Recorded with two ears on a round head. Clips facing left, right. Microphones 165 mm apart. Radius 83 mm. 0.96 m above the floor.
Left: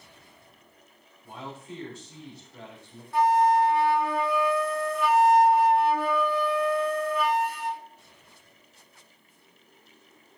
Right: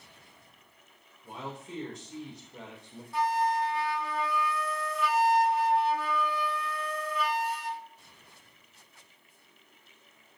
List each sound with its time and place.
1.2 s a man speaking: 20° right (ahead or behind), 3 m
3.1 s a flute: 45° left (ahead or behind), 0.7 m